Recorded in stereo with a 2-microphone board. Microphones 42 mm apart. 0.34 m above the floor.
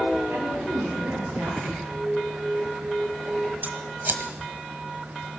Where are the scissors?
60° right (ahead or behind), 1.1 m.